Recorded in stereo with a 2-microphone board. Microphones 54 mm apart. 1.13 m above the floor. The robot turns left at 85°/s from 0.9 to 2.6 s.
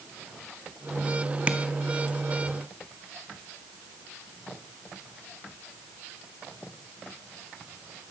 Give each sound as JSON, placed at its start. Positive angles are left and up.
{"t": 1.5, "sound": "tapping", "side_deg": -25, "distance_m": 0.9}